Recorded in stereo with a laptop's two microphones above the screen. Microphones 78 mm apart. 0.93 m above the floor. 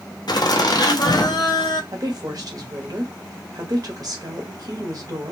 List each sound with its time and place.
0.3 s laughter: 60° left (ahead or behind), 0.9 m
1.9 s a woman speaking: 55° right (ahead or behind), 1.4 m